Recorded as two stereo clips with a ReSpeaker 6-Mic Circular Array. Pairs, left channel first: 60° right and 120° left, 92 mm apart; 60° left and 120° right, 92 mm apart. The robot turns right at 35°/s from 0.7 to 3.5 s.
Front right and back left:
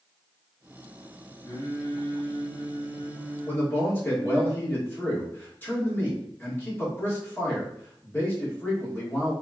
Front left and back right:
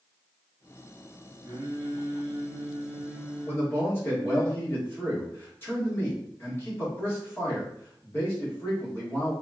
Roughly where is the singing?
Right.